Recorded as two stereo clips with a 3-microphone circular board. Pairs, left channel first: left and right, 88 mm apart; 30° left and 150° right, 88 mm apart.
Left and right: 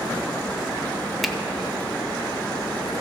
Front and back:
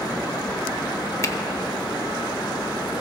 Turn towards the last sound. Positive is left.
turn(degrees=0)